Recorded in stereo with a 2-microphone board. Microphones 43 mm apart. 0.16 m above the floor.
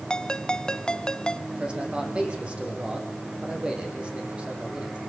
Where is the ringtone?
20° left (ahead or behind), 0.9 m.